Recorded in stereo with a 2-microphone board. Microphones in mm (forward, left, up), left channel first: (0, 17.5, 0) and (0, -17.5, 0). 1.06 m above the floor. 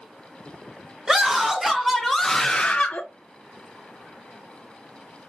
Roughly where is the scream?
Centre.